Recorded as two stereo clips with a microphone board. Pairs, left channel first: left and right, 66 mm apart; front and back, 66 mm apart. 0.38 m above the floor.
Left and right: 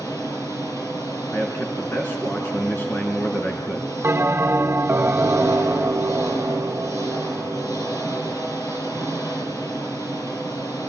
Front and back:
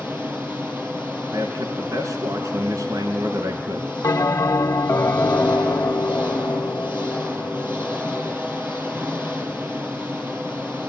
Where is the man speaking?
150° left, 4 m.